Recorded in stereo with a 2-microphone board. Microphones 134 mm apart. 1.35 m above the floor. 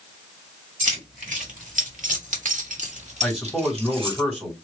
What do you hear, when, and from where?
0.8 s keys jangling: 70° right (ahead or behind), 2 m; by 4.2 s 40° right (ahead or behind), 1.4 m
3.2 s a man speaking: centre (ahead or behind), 2.5 m